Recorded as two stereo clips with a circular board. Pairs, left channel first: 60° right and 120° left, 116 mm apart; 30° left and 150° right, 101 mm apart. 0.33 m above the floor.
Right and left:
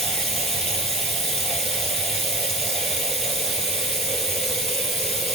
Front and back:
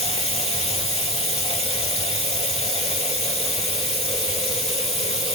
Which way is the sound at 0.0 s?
30° left.